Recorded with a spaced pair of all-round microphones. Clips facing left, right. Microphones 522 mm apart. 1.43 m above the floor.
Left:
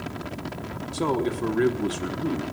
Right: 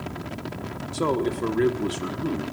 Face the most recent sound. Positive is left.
turn(degrees=5)  # may be behind; listen again after turning